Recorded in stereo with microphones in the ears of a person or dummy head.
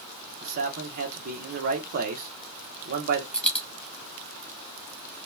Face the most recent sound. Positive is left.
turn(degrees=5)  # may be behind; listen again after turning